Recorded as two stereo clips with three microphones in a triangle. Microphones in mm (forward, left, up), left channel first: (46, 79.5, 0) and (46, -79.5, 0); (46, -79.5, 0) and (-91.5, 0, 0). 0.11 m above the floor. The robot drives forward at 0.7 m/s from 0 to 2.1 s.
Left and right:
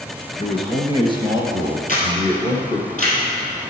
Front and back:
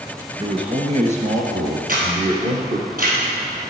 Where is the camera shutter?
125° left, 3 m; by 3.2 s 130° left, 3 m.